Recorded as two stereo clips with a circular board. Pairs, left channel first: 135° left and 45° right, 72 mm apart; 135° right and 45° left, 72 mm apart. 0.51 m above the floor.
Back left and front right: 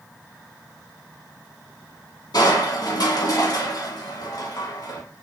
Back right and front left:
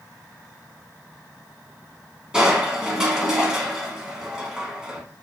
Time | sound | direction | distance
2.3 | crushing | 125° left | 0.7 m